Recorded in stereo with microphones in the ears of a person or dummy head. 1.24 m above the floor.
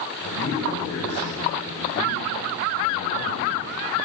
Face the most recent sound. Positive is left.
turn(degrees=85)